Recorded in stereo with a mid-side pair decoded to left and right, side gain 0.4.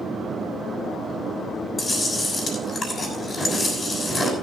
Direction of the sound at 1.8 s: 35° left.